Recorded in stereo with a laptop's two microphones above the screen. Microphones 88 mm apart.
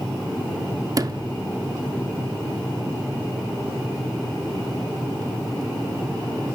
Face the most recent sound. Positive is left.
turn(degrees=-45)  # may be behind; listen again after turning